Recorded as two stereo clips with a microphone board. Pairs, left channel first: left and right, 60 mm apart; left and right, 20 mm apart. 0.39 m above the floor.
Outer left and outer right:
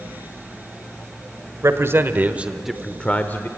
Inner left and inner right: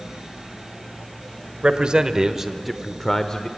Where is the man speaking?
50° right (ahead or behind), 1.4 m; by 3.5 s 35° left (ahead or behind), 1.2 m.